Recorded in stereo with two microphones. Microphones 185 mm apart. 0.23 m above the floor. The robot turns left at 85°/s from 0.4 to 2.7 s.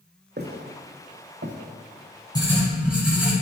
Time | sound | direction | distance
0.4 | footsteps | 65° right (ahead or behind) | 0.8 m
2.4 | writing | 25° left (ahead or behind) | 1.4 m